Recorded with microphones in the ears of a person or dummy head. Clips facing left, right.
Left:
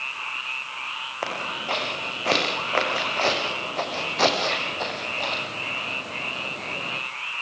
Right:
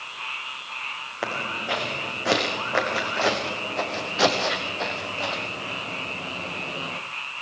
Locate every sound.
1.2 s footsteps: 10° right (ahead or behind), 5.5 m; by 7.0 s centre (ahead or behind), 2.5 m